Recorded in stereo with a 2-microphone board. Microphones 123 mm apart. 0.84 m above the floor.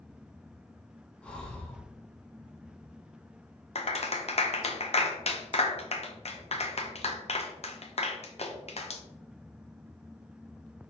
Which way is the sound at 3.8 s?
60° left (ahead or behind).